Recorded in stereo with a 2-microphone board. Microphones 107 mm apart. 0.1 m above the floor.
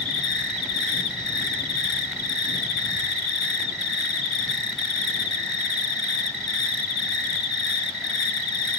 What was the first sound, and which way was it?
An insect, centre (ahead or behind).